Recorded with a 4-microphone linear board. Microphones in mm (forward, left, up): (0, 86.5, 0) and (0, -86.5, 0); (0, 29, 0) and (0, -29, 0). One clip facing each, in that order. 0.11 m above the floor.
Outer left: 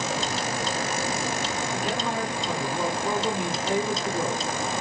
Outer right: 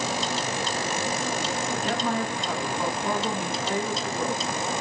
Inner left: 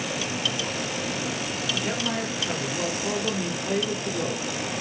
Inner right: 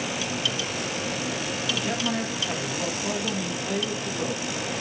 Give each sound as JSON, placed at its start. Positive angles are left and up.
{"t": 1.7, "sound": "a man speaking", "side_deg": 20, "distance_m": 1.3}